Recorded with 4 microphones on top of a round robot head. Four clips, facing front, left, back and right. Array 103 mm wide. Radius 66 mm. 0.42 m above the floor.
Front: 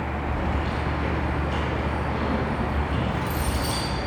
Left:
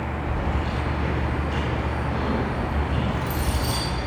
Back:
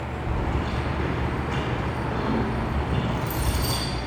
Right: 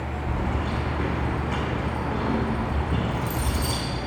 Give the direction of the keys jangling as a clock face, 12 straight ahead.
4 o'clock.